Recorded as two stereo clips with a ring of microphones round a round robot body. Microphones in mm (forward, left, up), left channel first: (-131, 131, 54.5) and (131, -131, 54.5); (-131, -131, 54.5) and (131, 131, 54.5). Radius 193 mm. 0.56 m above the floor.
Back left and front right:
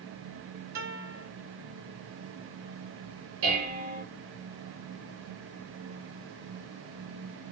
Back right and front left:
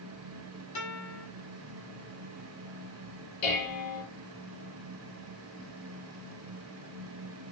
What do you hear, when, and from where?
0.8 s a guitar: 90° right, 6.5 m
3.4 s dishes clattering: 100° right, 9 m